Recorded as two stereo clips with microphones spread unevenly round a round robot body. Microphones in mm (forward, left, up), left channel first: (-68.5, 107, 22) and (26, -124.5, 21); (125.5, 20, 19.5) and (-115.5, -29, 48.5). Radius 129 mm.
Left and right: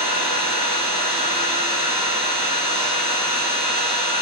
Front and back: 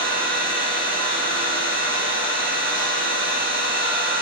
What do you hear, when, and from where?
0.0 s an engine running: 120° right, 5.5 m